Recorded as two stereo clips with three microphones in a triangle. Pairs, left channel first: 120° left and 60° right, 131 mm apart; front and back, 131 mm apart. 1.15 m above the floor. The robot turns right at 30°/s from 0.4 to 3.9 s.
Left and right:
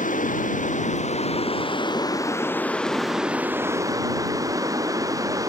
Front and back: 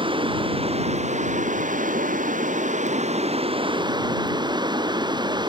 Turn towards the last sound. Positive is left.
turn(degrees=-125)